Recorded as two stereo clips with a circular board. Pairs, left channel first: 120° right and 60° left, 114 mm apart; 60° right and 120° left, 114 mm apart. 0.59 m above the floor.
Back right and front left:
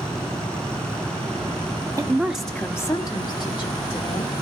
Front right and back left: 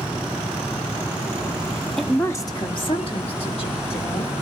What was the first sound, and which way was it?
A woman speaking, 30° left.